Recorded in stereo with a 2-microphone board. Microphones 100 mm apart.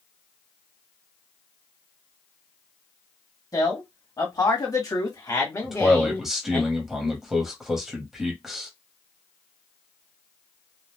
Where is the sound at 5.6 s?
5° right (ahead or behind), 1.1 m.